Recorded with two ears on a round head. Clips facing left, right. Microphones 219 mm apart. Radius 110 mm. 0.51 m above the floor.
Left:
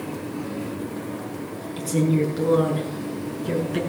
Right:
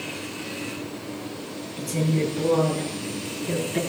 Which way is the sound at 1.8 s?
75° left (ahead or behind).